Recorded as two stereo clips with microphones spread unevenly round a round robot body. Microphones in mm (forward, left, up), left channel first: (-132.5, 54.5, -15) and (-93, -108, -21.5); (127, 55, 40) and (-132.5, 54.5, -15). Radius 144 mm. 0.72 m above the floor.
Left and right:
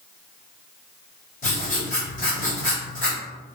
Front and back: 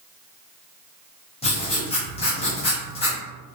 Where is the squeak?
No squeak in this recording.